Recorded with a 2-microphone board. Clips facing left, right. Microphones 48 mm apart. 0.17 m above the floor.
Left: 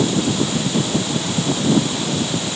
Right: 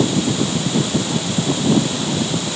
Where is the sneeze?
I don't hear a sneeze.